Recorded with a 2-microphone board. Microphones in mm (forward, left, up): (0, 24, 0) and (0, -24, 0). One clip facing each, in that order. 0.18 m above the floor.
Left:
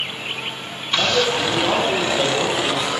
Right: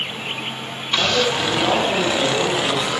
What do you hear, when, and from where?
1.0 s a man speaking: 10° left (ahead or behind), 6 m; by 2.9 s 5° left (ahead or behind), 4.5 m